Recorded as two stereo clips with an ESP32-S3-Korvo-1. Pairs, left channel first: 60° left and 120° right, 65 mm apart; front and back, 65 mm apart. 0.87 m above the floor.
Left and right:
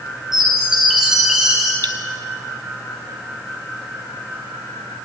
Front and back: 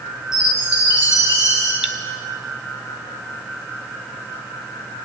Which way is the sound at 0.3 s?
35° right.